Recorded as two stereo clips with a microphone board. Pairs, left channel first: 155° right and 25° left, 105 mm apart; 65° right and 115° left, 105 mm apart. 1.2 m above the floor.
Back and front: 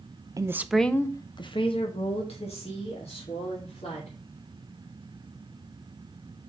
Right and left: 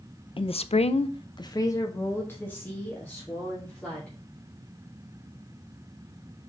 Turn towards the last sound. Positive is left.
turn(degrees=-150)